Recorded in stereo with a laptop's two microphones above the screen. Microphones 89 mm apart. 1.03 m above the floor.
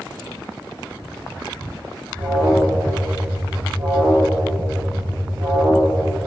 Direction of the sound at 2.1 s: 50° right (ahead or behind).